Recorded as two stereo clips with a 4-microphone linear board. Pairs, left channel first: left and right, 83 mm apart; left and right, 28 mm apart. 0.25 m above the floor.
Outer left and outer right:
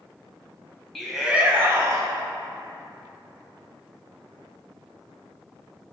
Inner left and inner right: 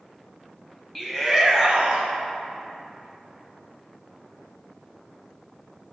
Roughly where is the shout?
Centre.